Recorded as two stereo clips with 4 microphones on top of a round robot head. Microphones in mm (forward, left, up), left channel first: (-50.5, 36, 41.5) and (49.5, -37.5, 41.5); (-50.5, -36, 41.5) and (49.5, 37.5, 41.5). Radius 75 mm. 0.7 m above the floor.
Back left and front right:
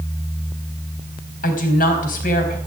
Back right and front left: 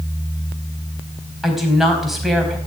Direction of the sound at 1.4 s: 125° left.